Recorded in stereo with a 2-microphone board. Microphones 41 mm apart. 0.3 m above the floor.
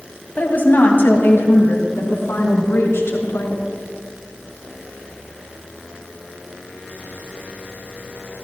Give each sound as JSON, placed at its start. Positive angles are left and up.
{"t": 0.4, "sound": "a woman speaking", "side_deg": 45, "distance_m": 2.0}